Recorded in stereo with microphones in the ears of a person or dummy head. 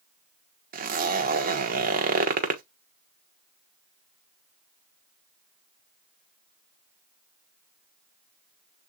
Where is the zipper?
40° right (ahead or behind), 1.0 m.